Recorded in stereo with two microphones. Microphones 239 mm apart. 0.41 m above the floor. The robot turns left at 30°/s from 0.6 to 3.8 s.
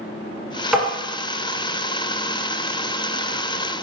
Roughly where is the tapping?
Centre.